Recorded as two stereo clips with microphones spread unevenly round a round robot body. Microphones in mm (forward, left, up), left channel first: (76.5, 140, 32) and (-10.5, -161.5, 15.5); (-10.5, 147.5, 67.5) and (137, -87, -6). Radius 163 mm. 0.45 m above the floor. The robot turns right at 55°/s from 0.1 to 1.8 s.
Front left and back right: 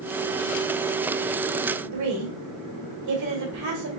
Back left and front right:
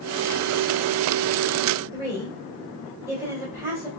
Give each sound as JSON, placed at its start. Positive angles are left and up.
{"t": 1.9, "sound": "a woman speaking", "azimuth_deg": -130, "distance_m": 2.0}